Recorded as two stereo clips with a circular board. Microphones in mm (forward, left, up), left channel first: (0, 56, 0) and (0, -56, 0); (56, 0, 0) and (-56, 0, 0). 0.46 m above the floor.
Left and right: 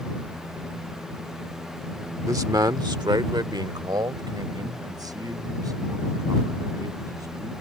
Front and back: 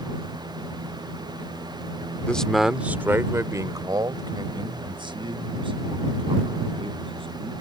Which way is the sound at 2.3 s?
70° right.